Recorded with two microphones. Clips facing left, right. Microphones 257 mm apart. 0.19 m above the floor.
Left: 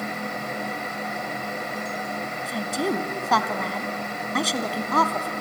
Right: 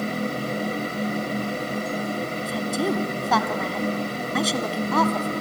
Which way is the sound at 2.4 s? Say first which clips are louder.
Right 1 dB; centre (ahead or behind).